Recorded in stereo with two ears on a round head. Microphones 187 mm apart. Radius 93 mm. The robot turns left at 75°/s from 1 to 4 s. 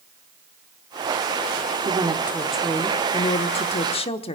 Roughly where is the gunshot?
No gunshot in this recording.